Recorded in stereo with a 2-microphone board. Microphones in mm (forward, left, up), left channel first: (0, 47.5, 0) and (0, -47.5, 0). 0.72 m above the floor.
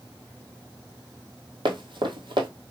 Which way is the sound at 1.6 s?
60° right (ahead or behind).